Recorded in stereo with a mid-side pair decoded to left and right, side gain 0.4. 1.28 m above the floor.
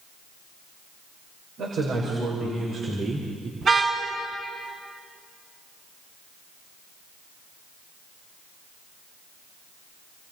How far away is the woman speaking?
About 6 m.